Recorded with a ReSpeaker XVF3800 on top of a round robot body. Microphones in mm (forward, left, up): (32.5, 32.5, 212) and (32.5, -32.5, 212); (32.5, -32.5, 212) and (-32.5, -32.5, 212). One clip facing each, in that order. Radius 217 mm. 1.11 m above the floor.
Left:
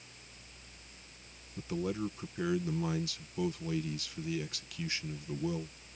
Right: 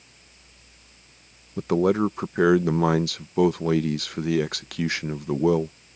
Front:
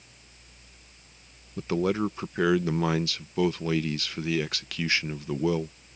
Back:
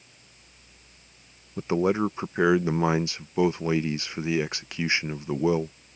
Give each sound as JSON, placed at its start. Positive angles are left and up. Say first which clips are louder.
{"t": 1.6, "sound": "a man speaking", "louder": "right 15 dB, back 3 dB", "azimuth_deg": -110}